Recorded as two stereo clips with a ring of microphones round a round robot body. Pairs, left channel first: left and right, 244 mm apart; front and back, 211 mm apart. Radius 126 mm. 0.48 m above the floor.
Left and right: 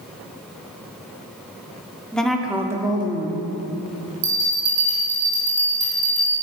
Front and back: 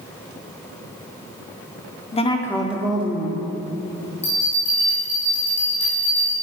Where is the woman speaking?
5° left, 0.7 m; by 3.5 s 150° right, 0.9 m.